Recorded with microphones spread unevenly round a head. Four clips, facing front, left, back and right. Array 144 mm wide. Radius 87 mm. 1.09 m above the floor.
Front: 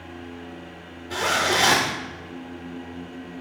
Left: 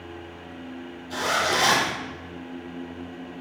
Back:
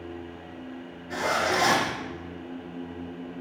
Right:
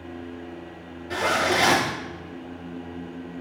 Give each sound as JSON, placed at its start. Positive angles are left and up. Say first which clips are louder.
{"t": 1.1, "sound": "a zipper", "louder": "right 2 dB, front 2 dB", "azimuth_deg": -85, "distance_m": 5.0}